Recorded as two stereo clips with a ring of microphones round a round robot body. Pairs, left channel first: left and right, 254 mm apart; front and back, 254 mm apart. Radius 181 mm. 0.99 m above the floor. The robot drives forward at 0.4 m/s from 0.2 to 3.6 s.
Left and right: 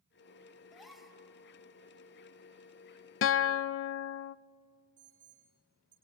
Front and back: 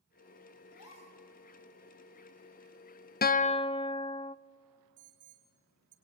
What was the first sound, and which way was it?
A gasp, straight ahead.